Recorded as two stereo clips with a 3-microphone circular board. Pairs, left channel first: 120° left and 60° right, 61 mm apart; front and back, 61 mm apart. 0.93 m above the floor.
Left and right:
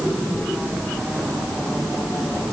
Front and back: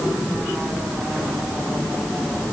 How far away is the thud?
No thud in this recording.